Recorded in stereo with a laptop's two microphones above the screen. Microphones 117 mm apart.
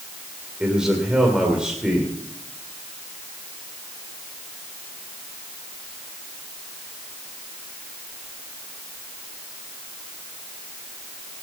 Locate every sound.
0.6 s a man speaking: 5° right (ahead or behind), 2.5 m